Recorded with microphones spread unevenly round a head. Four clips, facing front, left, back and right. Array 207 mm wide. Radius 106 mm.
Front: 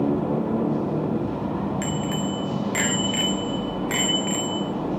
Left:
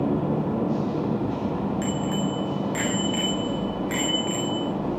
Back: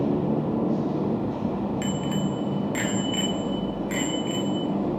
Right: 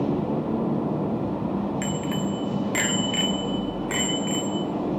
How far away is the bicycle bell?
About 2.5 m.